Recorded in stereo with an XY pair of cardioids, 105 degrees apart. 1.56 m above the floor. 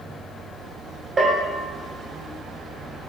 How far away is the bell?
About 1.2 m.